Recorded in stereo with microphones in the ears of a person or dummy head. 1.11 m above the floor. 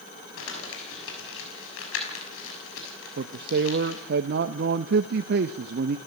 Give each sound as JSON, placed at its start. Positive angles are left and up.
{"t": 0.4, "sound": "crumpling", "side_deg": 85, "distance_m": 6.5}
{"t": 3.2, "sound": "a man speaking", "side_deg": -50, "distance_m": 0.8}